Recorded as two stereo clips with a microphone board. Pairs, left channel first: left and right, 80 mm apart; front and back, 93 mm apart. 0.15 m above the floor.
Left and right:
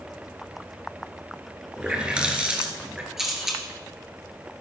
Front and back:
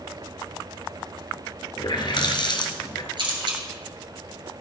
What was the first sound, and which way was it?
A running tap, 15° right.